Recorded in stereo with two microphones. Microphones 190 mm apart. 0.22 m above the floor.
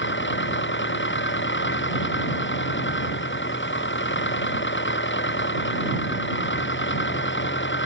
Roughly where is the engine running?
Left.